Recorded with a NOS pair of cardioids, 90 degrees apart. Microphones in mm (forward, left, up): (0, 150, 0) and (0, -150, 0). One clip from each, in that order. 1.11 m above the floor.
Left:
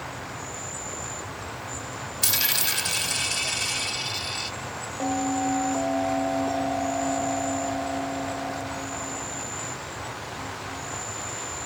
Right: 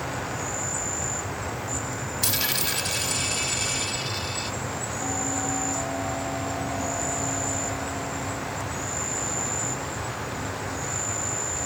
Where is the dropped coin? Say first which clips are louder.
Left 2 dB; 10° left.